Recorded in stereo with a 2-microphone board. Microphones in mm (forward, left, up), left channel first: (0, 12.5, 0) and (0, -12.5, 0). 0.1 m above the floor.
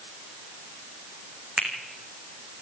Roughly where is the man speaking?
No man speaking in this recording.